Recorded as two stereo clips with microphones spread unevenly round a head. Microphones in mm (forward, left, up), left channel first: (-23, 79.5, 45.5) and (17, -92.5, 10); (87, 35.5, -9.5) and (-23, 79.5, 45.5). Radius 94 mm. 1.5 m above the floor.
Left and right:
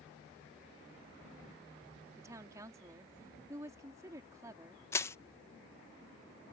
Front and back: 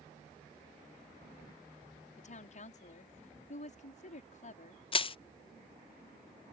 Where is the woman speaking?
Straight ahead.